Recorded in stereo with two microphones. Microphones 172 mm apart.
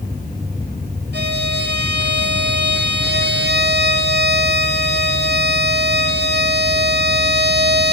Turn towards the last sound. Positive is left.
turn(degrees=-80)